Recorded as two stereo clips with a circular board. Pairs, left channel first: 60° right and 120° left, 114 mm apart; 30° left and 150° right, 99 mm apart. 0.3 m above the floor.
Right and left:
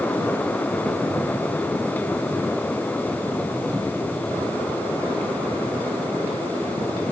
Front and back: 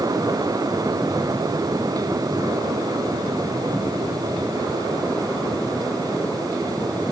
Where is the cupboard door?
I don't hear a cupboard door.